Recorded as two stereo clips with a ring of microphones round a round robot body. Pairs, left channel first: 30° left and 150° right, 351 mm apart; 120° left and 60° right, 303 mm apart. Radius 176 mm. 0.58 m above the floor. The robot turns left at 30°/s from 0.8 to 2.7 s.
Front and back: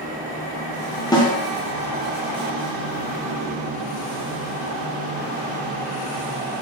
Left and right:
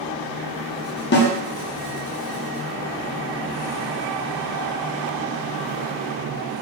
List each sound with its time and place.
1.1 s a snare drum: 105° left, 0.7 m; by 1.3 s 95° left, 0.7 m